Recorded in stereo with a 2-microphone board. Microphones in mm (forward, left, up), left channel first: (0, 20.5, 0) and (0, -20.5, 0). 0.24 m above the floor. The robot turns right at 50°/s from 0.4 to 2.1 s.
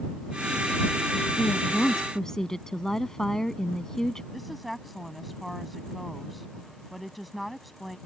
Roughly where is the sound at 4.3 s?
Centre.